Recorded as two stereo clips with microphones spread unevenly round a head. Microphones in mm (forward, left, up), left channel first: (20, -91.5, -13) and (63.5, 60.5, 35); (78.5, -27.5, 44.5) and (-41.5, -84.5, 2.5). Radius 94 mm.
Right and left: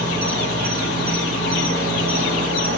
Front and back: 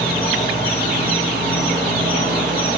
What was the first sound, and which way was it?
An insect, 100° left.